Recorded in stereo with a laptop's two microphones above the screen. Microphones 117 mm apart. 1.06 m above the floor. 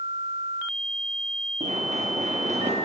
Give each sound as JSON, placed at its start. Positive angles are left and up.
{"t": 1.6, "sound": "running footsteps", "side_deg": -80, "distance_m": 5.5}